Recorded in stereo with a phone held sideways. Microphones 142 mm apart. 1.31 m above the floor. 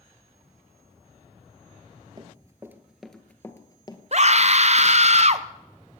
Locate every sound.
2.2 s running footsteps: 30° right (ahead or behind), 1.6 m; by 4.0 s 30° left (ahead or behind), 1.7 m
4.1 s a scream: 50° right (ahead or behind), 0.7 m